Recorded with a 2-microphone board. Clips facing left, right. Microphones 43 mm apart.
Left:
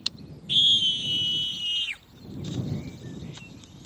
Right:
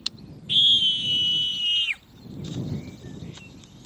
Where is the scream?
20° right (ahead or behind); by 2.0 s 40° right (ahead or behind).